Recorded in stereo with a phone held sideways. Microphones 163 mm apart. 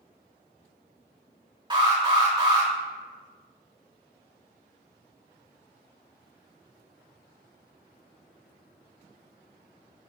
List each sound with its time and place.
1.7 s an alarm: 30° right (ahead or behind), 3 m